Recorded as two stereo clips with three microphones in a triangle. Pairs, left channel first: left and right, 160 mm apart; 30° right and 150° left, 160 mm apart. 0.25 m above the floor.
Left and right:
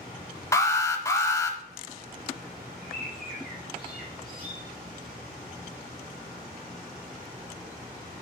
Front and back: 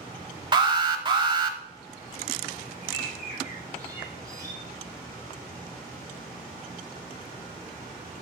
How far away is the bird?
About 2.0 m.